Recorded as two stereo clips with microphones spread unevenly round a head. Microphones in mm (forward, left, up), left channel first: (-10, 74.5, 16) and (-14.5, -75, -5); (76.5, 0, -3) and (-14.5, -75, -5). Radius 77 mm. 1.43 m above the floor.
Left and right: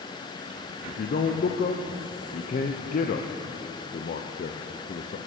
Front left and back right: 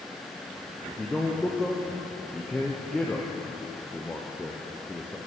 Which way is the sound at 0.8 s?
125° left.